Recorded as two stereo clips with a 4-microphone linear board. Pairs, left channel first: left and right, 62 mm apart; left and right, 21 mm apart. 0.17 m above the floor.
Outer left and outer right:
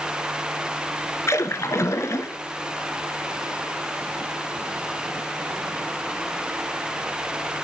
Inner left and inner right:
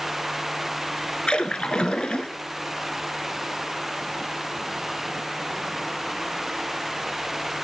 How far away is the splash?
About 0.7 m.